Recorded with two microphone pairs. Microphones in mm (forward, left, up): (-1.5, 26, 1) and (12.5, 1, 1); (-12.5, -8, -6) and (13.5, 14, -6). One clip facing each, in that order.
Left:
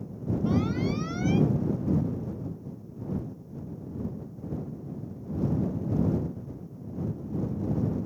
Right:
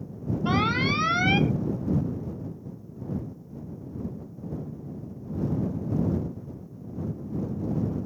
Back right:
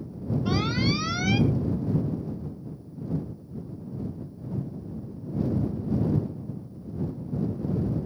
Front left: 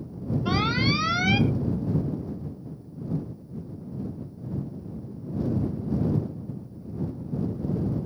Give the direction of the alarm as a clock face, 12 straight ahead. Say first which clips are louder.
Right 4 dB, front left 2 dB; 1 o'clock.